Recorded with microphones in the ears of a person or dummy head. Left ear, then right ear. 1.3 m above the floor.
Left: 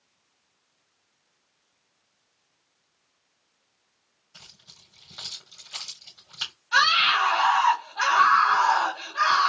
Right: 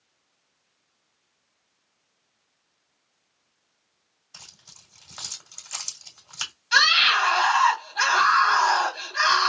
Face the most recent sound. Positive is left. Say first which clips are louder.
# right 2 dB
turn(degrees=-65)  # may be behind; listen again after turning